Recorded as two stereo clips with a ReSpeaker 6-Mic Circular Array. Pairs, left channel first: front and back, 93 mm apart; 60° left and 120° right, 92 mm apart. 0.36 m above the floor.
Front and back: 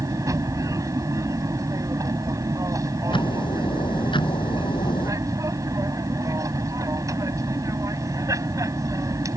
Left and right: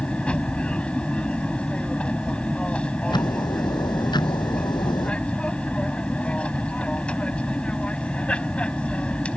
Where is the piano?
No piano in this recording.